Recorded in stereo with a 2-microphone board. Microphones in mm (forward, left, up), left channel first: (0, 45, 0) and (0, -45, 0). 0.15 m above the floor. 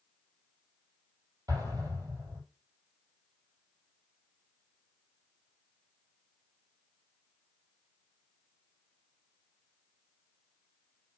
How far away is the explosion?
About 4.5 m.